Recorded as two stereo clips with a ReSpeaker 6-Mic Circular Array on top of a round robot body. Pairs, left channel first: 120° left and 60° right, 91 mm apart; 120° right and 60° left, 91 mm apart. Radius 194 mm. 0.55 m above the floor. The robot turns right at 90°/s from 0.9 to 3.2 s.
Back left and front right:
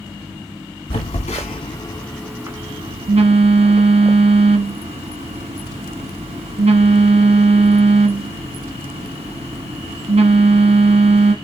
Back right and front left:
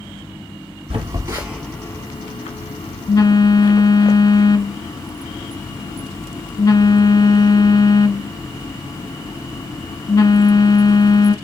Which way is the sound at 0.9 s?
90° left.